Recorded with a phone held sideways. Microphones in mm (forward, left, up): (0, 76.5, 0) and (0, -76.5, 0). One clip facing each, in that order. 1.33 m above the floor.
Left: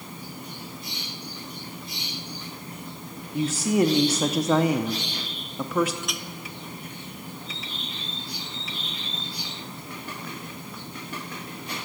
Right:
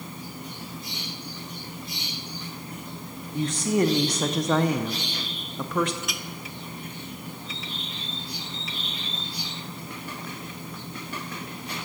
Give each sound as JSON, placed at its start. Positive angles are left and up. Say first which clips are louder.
{"t": 3.3, "sound": "a woman speaking", "louder": "left 1 dB", "side_deg": 5, "distance_m": 0.6}
{"t": 6.0, "sound": "a clink", "louder": "left 1 dB", "side_deg": 0, "distance_m": 0.9}